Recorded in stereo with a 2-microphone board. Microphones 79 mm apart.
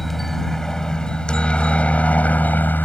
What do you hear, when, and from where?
0.0 s a helicopter: 5° left (ahead or behind); by 2.9 s 25° left (ahead or behind)